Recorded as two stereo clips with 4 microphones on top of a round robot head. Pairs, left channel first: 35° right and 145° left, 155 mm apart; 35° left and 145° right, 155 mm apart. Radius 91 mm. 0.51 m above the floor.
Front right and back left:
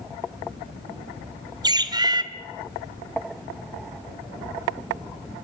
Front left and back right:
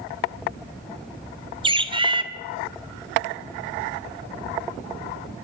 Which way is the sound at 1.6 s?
175° right.